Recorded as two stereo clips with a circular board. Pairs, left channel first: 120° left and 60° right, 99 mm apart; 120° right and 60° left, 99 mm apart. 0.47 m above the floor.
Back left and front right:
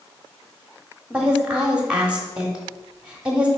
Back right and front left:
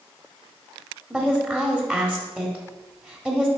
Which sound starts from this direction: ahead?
A woman speaking, at 1.1 s.